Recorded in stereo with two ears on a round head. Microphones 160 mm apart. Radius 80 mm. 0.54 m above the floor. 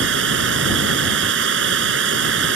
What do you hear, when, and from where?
0.0 s running water: 75° right (ahead or behind)